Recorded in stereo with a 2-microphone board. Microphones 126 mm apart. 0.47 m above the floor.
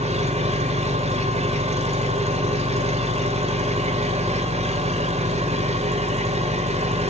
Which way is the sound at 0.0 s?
60° right (ahead or behind).